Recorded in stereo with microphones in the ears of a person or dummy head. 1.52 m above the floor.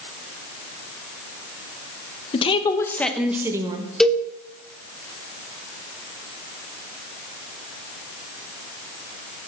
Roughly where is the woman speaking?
Left.